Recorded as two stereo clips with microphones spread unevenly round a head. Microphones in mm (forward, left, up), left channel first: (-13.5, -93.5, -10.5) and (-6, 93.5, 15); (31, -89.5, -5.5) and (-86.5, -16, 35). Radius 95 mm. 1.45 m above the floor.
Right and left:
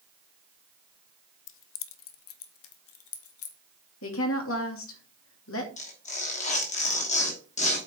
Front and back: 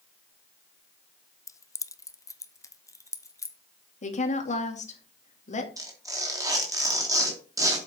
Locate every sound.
1.5 s keys jangling: 110° right, 0.5 m; by 3.6 s 105° right, 1.7 m
4.0 s a woman speaking: 70° right, 2 m
5.8 s tearing paper: 145° right, 3 m